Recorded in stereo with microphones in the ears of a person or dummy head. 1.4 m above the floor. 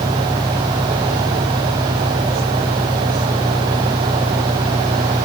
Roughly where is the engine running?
Centre.